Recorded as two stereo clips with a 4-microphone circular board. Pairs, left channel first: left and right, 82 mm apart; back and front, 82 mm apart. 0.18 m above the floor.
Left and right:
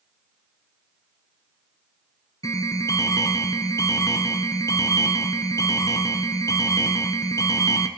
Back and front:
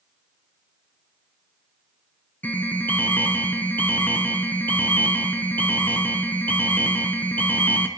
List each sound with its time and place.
2.4 s an alarm: 115° left, 1.3 m